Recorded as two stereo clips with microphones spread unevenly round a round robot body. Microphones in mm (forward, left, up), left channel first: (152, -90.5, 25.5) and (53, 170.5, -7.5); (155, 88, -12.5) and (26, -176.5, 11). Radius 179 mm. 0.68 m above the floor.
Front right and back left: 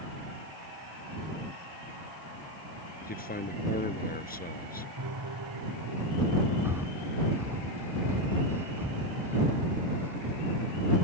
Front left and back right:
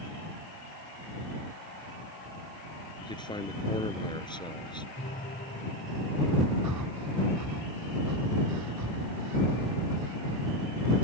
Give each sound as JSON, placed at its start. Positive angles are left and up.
{"t": 3.0, "sound": "a man speaking", "azimuth_deg": -10}
{"t": 5.0, "sound": "a piano", "azimuth_deg": 135}
{"t": 6.6, "sound": "breathing", "azimuth_deg": -165}